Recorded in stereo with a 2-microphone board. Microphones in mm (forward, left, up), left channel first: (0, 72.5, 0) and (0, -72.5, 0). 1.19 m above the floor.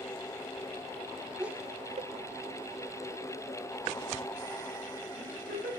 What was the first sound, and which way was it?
Laughter, 5° right (ahead or behind).